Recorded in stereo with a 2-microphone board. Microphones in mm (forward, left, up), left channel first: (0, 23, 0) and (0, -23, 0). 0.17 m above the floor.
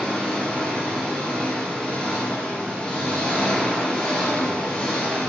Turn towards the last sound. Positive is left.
turn(degrees=25)  # may be behind; listen again after turning